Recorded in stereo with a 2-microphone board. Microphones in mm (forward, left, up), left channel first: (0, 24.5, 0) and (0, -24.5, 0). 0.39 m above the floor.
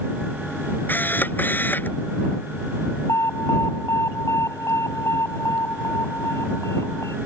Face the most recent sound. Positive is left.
turn(degrees=80)